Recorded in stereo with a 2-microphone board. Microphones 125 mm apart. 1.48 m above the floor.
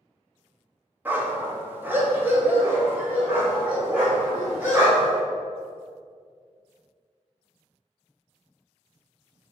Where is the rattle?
I don't hear a rattle.